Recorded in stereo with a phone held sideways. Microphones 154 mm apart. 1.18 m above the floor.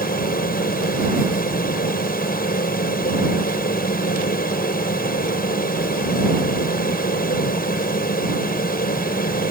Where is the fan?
75° left (ahead or behind).